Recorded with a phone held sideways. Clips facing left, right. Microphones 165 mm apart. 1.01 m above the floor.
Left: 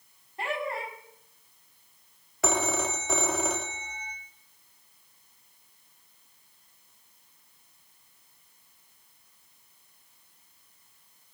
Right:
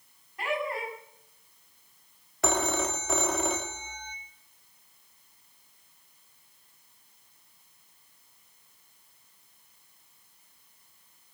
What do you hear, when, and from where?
0.4 s laughter: 30° left (ahead or behind), 6 m
2.4 s a phone ringing: centre (ahead or behind), 1.1 m